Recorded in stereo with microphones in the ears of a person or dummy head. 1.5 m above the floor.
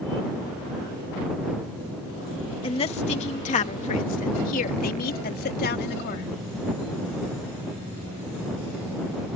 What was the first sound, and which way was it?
A woman speaking, 30° left (ahead or behind).